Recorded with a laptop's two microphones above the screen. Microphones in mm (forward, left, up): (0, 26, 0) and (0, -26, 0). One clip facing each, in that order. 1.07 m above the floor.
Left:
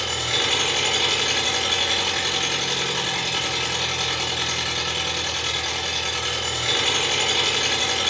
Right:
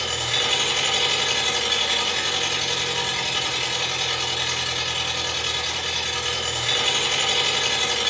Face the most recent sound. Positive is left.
turn(degrees=60)  # may be behind; listen again after turning